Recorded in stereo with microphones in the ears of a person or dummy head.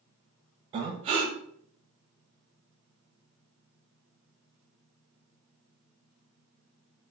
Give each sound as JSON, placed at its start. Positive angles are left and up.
{"t": 0.7, "sound": "breathing", "side_deg": -30, "distance_m": 0.6}